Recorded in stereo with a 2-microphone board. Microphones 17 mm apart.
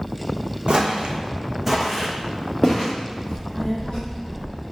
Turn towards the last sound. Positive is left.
turn(degrees=55)  # may be behind; listen again after turning